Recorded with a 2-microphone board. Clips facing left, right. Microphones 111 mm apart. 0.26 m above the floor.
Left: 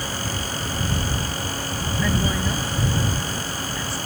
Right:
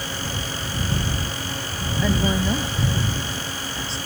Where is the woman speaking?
25° right (ahead or behind).